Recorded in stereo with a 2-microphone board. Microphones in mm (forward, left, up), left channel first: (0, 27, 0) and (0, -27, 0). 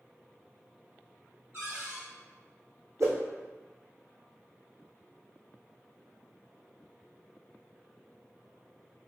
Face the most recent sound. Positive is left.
turn(degrees=-70)  # may be behind; listen again after turning